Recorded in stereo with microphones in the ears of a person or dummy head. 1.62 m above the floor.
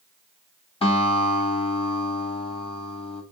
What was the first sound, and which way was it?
A guitar, 30° left (ahead or behind).